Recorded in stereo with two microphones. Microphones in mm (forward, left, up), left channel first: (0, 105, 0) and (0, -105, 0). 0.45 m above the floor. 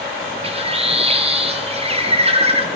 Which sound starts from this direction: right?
A bird, at 0.4 s.